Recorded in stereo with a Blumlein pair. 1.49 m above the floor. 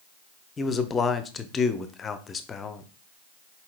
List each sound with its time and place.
0.6 s a man speaking: 20° left, 0.5 m